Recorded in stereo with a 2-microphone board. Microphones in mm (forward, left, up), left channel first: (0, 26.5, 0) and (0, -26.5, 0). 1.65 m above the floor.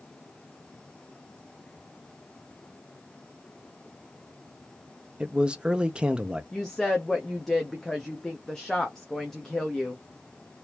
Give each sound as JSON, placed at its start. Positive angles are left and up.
{"t": 5.2, "sound": "a man speaking", "side_deg": -15, "distance_m": 0.7}
{"t": 6.5, "sound": "a woman speaking", "side_deg": 10, "distance_m": 0.8}